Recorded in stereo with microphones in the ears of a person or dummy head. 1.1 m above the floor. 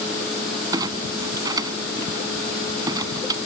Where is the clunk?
20° right (ahead or behind).